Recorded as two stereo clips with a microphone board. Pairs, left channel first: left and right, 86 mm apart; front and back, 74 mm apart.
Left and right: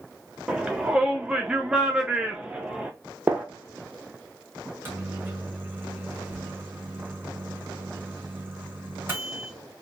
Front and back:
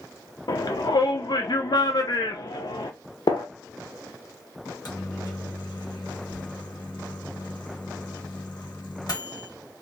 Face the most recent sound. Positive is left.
turn(degrees=-25)